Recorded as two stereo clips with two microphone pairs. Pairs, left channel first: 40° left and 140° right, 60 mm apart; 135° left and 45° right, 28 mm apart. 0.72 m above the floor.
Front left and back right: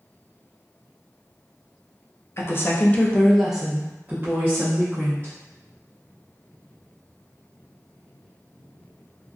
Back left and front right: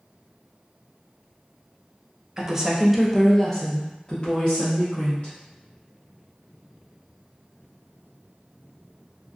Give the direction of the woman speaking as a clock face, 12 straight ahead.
11 o'clock.